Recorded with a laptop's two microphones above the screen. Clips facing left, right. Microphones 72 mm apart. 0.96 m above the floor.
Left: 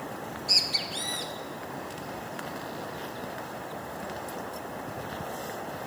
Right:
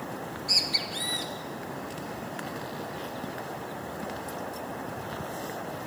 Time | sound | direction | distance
0.2 | a bird | 40° right (ahead or behind) | 1.4 m